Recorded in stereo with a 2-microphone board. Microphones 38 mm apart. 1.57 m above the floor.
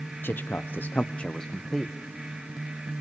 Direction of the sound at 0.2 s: 70° left (ahead or behind).